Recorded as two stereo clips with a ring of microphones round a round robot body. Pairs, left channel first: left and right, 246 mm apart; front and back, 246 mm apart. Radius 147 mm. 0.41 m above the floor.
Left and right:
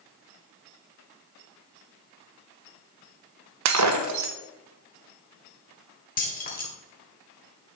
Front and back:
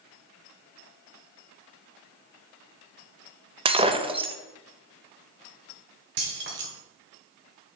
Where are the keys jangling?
140° left, 1.6 m.